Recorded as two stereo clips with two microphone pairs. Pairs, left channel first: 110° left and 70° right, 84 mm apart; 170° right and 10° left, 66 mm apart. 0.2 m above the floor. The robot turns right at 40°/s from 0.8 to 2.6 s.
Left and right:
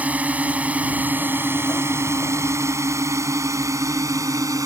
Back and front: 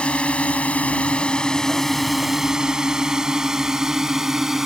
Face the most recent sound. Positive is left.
turn(degrees=-70)